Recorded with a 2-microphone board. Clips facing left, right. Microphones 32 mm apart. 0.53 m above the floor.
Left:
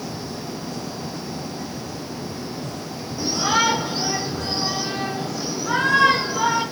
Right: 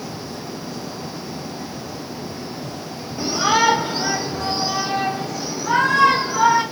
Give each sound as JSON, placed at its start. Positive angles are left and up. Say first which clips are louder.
{"t": 3.2, "sound": "a shout", "louder": "right 3 dB", "side_deg": -35, "distance_m": 1.0}